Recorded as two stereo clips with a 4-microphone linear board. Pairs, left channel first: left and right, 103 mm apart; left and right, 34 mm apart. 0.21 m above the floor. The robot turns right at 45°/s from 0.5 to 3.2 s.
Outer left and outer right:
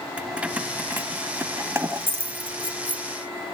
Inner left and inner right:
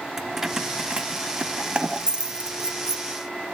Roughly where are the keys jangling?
Centre.